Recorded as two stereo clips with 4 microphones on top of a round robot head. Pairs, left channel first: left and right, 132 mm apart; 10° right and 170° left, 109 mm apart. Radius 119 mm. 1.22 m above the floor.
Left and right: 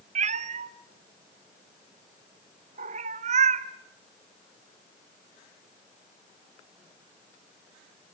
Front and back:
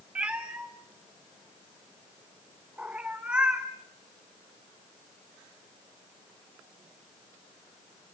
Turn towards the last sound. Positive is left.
turn(degrees=-110)